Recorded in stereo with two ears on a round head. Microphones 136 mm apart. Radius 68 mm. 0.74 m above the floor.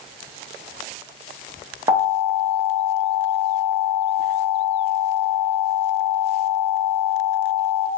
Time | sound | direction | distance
1.9 | an alarm | 25° right (ahead or behind) | 0.9 m